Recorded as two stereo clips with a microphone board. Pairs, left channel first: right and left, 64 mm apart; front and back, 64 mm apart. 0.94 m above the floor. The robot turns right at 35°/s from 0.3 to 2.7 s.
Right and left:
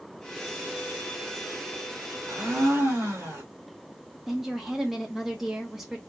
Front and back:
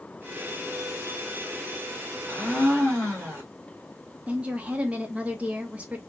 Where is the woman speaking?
170° left, 0.7 m.